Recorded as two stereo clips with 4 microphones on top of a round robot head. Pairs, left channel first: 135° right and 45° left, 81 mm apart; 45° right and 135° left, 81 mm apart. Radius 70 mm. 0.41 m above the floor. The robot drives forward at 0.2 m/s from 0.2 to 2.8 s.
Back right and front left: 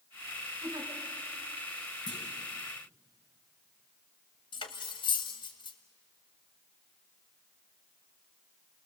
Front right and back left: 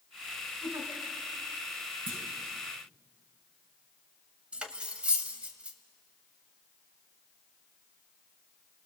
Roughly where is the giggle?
Left.